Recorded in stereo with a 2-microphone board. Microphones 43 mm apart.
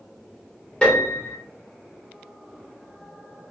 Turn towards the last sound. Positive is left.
turn(degrees=20)  # may be behind; listen again after turning